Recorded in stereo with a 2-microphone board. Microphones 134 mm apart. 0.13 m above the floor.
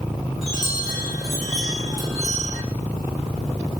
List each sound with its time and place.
0.4 s a chime: centre (ahead or behind), 6.5 m